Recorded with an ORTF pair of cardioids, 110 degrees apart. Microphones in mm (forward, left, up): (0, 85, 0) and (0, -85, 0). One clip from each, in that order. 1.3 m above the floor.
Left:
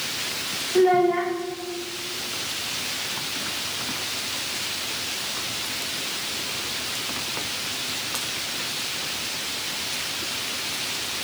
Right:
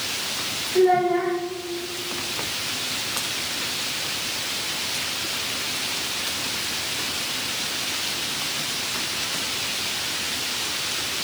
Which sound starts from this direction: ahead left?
A child speaking, at 0.8 s.